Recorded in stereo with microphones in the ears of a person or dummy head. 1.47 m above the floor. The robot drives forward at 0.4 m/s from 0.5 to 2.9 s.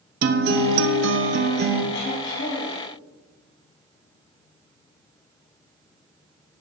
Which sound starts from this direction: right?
A guitar, at 0.2 s.